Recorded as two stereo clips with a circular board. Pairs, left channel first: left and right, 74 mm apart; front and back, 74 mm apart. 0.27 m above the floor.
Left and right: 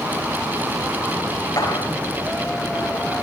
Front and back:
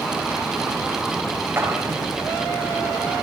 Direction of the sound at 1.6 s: 115° left.